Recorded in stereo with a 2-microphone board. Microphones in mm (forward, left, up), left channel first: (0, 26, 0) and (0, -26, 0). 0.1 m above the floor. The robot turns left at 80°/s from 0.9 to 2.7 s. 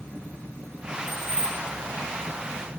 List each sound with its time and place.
1.1 s keys jangling: 75° left, 4 m; by 1.6 s 30° left, 4 m